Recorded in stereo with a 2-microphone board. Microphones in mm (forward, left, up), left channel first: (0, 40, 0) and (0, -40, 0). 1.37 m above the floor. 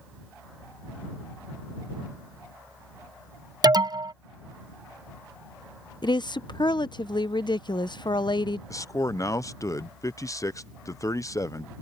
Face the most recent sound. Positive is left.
turn(degrees=40)  # may be behind; listen again after turning